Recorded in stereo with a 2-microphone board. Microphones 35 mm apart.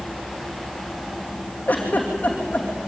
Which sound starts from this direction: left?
A giggle, at 1.7 s.